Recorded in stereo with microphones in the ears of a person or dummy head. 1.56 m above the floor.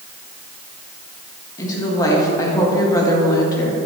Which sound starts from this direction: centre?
A woman speaking, at 1.6 s.